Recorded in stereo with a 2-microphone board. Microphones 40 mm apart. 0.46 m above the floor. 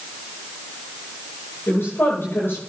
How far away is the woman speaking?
About 10 m.